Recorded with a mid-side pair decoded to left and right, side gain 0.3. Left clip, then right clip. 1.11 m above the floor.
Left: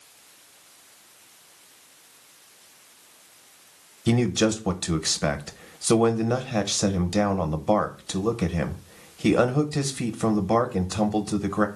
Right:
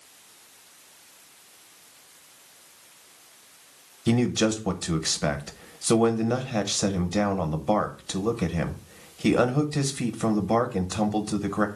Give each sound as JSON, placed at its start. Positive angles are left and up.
{"t": 4.1, "sound": "a man speaking", "azimuth_deg": 25, "distance_m": 0.6}